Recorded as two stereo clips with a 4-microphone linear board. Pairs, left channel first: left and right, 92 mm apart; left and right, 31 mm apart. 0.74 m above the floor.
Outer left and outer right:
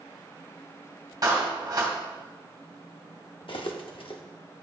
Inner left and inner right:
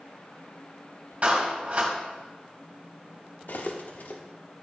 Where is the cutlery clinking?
70° left (ahead or behind), 1.0 m.